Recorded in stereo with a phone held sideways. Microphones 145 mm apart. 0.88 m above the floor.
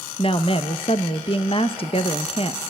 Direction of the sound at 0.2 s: 40° left (ahead or behind).